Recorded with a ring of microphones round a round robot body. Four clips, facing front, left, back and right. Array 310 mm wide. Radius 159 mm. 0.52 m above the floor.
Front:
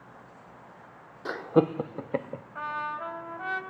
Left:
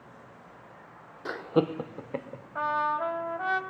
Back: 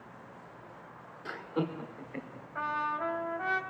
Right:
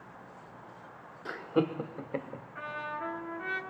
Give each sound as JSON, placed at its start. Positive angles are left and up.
{"t": 1.2, "sound": "laughter", "azimuth_deg": 30, "distance_m": 1.1}
{"t": 2.5, "sound": "a trumpet", "azimuth_deg": 95, "distance_m": 3.0}